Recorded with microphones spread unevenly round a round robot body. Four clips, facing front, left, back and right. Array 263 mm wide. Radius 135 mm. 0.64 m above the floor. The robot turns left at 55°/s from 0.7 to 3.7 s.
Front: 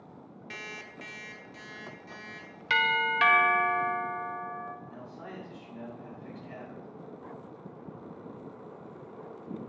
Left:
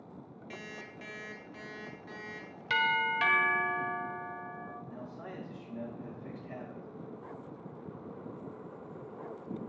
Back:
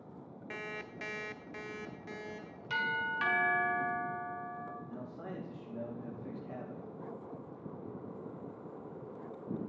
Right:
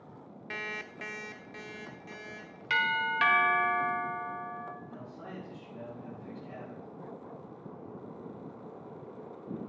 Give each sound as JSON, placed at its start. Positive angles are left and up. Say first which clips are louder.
{"t": 0.5, "sound": "an alarm clock", "louder": "right 6 dB, back 2 dB", "azimuth_deg": -90, "distance_m": 0.6}
{"t": 2.7, "sound": "a doorbell", "louder": "even, front 7 dB", "azimuth_deg": 10, "distance_m": 1.8}
{"t": 4.9, "sound": "a man speaking", "louder": "left 1 dB, even", "azimuth_deg": 160, "distance_m": 4.5}